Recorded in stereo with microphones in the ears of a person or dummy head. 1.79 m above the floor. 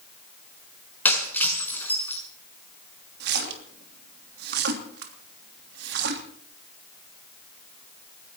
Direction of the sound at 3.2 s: 60° right (ahead or behind).